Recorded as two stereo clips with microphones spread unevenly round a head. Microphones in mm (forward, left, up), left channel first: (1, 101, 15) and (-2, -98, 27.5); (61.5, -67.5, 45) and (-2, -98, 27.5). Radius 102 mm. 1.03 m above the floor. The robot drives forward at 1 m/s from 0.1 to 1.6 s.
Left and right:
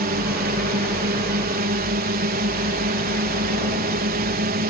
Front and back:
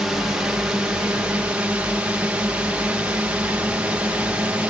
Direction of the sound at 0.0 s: 85° right.